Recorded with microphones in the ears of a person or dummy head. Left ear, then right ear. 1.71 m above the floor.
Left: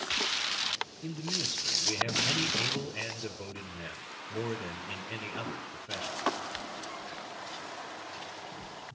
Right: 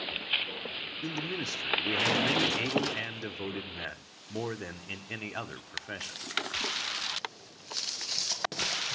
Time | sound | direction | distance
1.0 | a man speaking | 50° right (ahead or behind) | 1.2 m